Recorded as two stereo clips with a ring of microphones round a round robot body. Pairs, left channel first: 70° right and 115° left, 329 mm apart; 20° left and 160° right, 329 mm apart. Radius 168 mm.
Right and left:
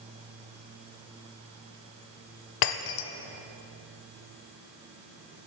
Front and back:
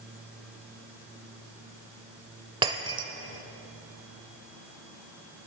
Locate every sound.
2.6 s breaking glass: 80° right, 0.9 m